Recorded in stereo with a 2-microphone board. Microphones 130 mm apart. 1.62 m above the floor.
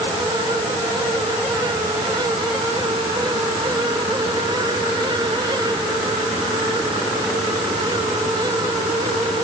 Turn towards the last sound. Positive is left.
No sound to turn to.